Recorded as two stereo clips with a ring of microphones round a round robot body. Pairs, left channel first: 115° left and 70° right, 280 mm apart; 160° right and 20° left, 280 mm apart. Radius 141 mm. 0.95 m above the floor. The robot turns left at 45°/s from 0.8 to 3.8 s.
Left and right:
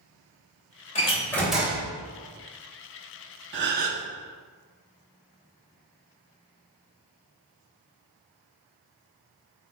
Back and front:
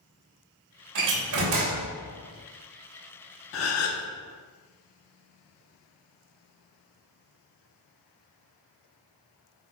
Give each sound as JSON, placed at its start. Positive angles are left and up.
{"t": 0.9, "sound": "a door slam", "azimuth_deg": 45, "distance_m": 2.5}
{"t": 3.5, "sound": "a gasp", "azimuth_deg": -115, "distance_m": 1.1}